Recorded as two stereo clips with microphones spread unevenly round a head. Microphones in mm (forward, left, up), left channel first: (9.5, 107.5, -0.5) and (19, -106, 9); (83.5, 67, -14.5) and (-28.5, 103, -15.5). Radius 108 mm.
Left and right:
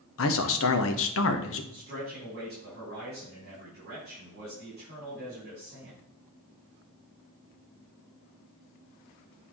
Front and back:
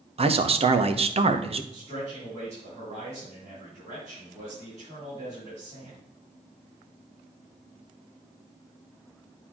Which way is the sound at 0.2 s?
125° left.